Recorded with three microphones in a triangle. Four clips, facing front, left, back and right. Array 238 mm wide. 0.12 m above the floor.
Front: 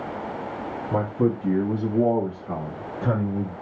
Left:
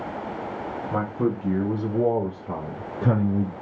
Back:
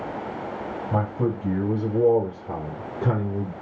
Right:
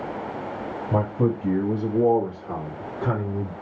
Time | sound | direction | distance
0.9 | a man speaking | 80° right | 1.2 m